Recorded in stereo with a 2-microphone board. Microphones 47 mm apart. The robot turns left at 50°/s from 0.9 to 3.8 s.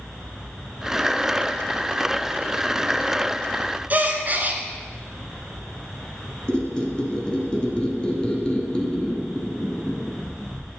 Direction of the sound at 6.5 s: 20° left (ahead or behind).